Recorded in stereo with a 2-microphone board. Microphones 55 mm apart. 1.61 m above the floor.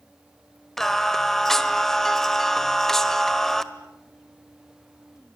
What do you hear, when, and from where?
0.8 s singing: 5° left (ahead or behind), 1.4 m